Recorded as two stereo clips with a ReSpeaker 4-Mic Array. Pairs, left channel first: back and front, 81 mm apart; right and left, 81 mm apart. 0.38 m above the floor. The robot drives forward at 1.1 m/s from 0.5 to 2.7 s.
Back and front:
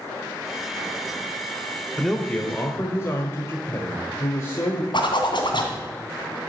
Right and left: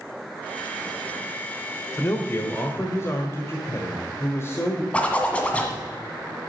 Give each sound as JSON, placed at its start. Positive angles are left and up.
{"t": 2.0, "sound": "a man speaking", "azimuth_deg": -80, "distance_m": 1.2}
{"t": 4.9, "sound": "a zipper", "azimuth_deg": -165, "distance_m": 1.7}